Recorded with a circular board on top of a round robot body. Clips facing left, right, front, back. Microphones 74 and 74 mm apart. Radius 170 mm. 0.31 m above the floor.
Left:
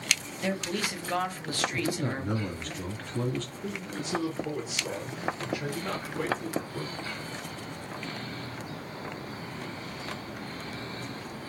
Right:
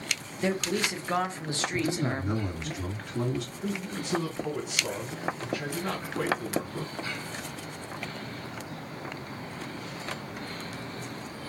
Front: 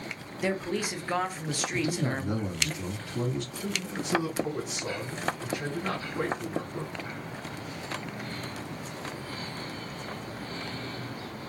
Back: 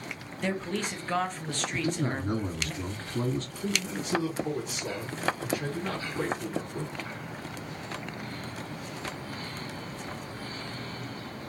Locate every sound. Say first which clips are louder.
0.4 s a man speaking: right 3 dB, front 2 dB; 65° right, 1.0 m
1.7 s a man speaking: right 5 dB, even; 160° right, 1.9 m
3.6 s a man speaking: right 2 dB, back 1 dB; 70° right, 2 m